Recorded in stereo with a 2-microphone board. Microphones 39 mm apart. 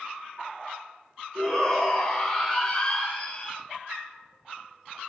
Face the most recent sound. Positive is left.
turn(degrees=25)  # may be behind; listen again after turning